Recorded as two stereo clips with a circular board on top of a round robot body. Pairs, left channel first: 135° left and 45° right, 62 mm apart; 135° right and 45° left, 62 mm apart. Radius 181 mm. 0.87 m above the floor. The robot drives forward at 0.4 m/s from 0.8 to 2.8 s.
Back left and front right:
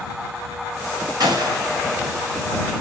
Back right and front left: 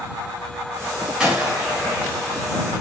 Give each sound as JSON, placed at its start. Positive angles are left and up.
{"t": 1.2, "sound": "a gunshot", "azimuth_deg": -35, "distance_m": 2.5}